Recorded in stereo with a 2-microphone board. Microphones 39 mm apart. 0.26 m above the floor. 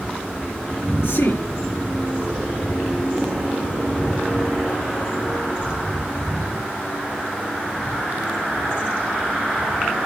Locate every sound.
1.0 s a man speaking: 80° left, 5 m